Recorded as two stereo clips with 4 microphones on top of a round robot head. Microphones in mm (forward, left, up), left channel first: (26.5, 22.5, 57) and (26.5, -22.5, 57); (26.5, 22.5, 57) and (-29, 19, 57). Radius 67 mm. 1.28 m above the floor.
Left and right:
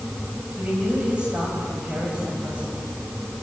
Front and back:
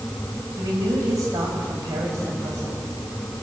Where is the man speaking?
160° right, 6 m.